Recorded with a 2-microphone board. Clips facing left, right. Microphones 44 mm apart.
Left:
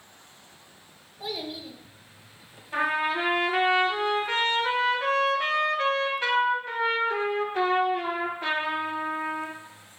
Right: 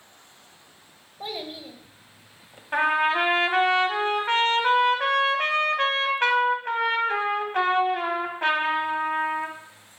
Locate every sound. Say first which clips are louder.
1.2 s a child speaking: even; 35° right (ahead or behind), 1.4 m
2.7 s a trumpet: right 4 dB; 60° right (ahead or behind), 1.3 m